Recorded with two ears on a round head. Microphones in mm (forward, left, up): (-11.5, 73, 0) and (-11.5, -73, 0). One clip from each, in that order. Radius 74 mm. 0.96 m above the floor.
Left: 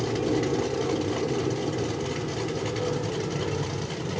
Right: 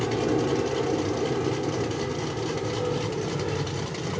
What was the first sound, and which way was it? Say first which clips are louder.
An aircraft: right 1 dB; 40° right (ahead or behind).